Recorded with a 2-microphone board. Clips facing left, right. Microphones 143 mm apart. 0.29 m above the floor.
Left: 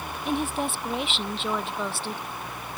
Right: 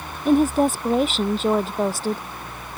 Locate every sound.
0.2 s a woman speaking: 35° right (ahead or behind)